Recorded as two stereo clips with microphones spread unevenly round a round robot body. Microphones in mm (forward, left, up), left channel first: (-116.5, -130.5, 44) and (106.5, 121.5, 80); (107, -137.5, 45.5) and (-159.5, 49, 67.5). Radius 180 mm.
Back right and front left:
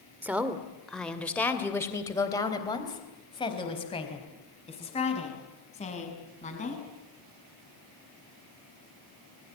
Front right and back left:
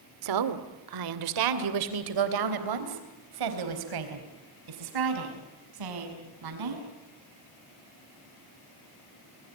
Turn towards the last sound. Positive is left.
turn(degrees=160)